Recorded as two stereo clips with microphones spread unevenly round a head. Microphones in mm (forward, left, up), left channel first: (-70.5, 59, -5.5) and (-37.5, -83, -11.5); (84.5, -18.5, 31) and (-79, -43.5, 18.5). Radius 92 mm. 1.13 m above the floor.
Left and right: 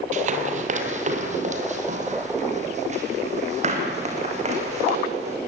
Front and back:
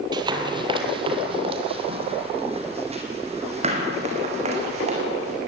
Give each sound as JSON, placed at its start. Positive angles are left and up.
{"t": 0.1, "sound": "running footsteps", "azimuth_deg": -105, "distance_m": 2.0}